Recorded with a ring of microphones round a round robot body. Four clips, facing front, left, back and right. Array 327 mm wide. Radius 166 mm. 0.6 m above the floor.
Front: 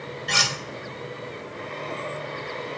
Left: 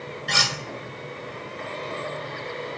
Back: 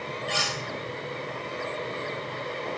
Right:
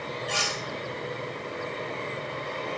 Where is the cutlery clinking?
50° left, 1.3 m.